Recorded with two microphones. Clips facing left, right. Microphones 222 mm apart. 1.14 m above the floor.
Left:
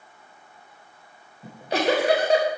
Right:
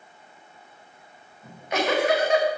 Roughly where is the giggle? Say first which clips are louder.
Left 3 dB; left.